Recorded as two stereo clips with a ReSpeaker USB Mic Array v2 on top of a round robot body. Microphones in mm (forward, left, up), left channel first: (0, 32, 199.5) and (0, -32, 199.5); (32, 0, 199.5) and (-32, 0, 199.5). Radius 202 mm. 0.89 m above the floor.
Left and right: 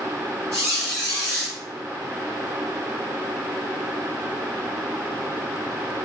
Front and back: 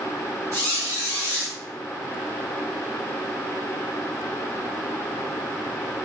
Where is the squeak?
140° left, 0.5 m.